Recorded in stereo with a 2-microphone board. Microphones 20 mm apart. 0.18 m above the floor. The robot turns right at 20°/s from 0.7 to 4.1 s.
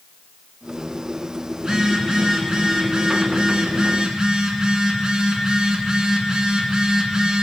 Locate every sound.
1.6 s a phone buzzing: 125° right, 2 m; by 7.4 s 75° right, 2 m